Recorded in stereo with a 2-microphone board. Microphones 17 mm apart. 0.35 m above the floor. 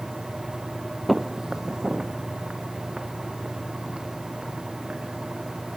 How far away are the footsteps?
About 0.6 m.